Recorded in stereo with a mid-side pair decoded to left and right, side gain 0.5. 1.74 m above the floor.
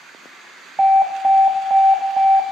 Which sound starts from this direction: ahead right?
An alarm, at 0.8 s.